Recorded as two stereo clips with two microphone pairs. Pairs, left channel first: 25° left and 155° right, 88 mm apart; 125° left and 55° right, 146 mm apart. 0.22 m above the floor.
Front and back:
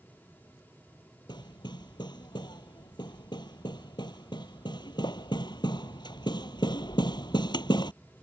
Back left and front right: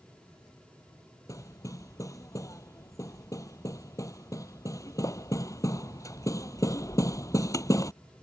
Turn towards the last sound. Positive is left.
turn(degrees=55)